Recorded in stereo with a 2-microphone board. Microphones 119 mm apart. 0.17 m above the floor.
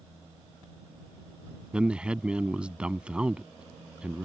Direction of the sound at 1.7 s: 10° right (ahead or behind).